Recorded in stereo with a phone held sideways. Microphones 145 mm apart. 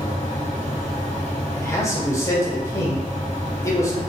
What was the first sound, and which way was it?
A fan, 50° left (ahead or behind).